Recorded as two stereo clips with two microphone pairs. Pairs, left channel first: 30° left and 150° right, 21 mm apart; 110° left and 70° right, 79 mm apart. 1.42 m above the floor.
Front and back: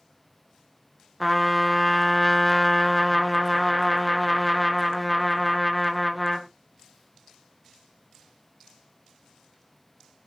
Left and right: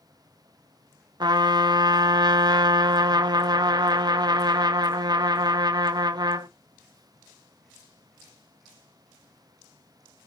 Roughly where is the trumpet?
Ahead right.